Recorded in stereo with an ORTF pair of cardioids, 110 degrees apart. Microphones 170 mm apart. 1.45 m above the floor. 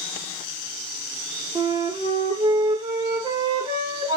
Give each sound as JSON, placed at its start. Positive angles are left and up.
{"t": 1.6, "sound": "a flute", "azimuth_deg": -30, "distance_m": 2.0}